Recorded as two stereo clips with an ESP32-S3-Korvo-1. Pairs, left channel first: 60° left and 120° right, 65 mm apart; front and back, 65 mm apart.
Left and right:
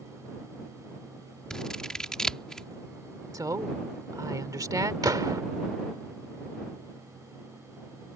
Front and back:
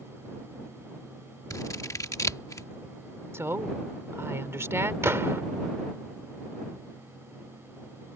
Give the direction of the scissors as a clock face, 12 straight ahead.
1 o'clock.